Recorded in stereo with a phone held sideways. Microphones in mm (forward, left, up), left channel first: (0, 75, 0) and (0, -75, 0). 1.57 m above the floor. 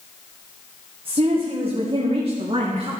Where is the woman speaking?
35° right (ahead or behind), 1.4 m; by 2.9 s 40° right (ahead or behind), 3 m.